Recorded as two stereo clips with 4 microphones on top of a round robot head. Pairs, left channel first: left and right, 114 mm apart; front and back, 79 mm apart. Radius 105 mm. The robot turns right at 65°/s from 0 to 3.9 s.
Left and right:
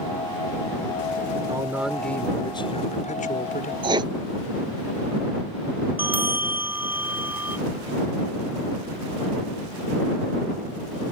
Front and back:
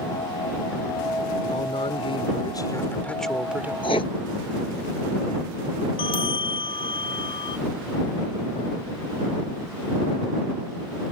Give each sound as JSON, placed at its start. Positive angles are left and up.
{"t": 1.5, "sound": "a man speaking", "azimuth_deg": -30}
{"t": 3.8, "sound": "writing", "azimuth_deg": -50}
{"t": 6.0, "sound": "a bell", "azimuth_deg": -15}